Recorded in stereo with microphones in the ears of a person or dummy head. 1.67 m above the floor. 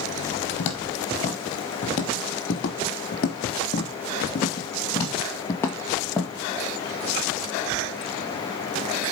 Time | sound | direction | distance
0.6 | footsteps | 35° left (ahead or behind) | 2.5 m